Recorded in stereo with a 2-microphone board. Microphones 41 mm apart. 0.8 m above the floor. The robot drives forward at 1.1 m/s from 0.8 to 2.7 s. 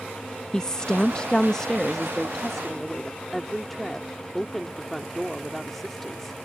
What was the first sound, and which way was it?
A woman speaking, 15° left (ahead or behind).